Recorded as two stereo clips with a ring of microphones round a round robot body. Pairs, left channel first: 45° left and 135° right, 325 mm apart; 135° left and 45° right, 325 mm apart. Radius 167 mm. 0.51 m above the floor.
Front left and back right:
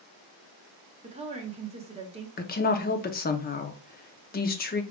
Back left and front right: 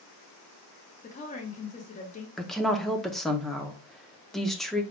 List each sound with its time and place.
1.0 s a woman speaking: 175° left, 1.1 m
2.4 s a woman speaking: 45° left, 0.7 m